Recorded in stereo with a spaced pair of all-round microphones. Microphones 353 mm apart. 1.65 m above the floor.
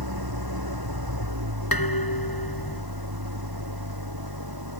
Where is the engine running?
85° right.